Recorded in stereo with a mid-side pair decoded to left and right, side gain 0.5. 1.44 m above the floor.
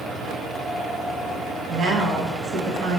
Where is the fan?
40° right, 1.5 m.